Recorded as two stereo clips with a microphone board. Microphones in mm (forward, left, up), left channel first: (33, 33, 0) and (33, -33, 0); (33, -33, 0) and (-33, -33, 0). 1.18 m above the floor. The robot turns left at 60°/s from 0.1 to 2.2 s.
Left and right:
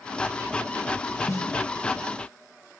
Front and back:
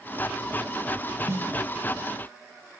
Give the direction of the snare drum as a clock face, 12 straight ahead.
8 o'clock.